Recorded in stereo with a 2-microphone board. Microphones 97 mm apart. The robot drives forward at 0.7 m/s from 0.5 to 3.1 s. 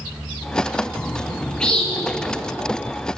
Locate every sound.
0.9 s a bird: 10° left (ahead or behind), 0.7 m; by 2.3 s 5° left (ahead or behind), 1.4 m